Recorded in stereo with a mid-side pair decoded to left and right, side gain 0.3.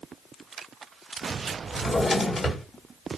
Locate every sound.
1.7 s a drawer: 50° left, 1.7 m